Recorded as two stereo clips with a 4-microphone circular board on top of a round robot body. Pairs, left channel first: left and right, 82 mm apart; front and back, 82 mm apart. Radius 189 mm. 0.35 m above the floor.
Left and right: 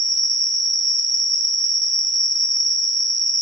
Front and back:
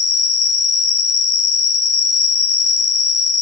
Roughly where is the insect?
Right.